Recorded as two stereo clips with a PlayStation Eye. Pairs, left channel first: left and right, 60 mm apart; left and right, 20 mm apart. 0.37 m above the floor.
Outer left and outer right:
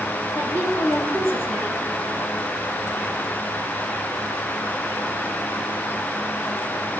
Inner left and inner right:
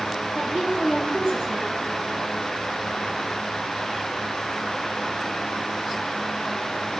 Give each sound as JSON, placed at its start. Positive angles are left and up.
{"t": 0.3, "sound": "a woman speaking", "side_deg": -50, "distance_m": 4.0}